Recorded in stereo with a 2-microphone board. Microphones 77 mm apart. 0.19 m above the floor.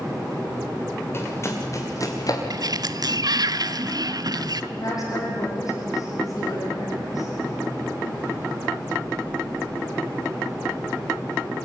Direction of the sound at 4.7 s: 45° left (ahead or behind).